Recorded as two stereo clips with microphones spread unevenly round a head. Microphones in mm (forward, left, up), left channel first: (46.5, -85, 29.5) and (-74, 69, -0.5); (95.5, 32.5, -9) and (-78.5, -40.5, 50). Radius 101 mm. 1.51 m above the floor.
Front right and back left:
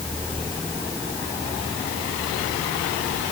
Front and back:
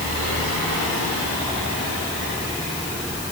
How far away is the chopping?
No chopping in this recording.